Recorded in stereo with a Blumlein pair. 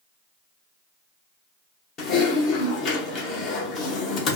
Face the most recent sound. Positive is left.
turn(degrees=35)